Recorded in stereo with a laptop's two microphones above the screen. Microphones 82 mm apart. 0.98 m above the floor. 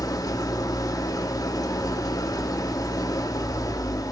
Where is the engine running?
45° left (ahead or behind), 1.8 m.